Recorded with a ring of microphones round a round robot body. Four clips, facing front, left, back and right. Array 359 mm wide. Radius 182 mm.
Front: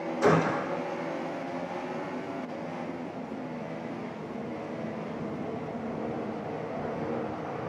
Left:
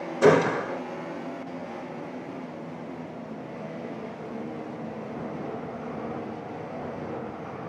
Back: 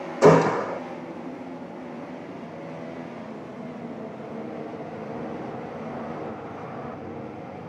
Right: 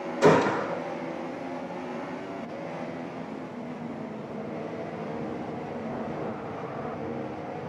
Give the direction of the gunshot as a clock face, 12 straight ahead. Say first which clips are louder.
Left 1 dB, back 8 dB; 7 o'clock.